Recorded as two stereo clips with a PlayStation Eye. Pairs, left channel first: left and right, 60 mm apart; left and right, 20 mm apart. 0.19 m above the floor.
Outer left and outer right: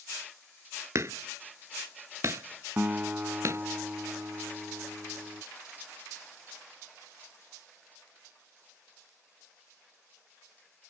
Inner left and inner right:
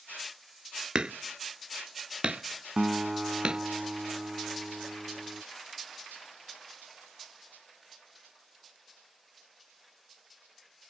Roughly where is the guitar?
Right.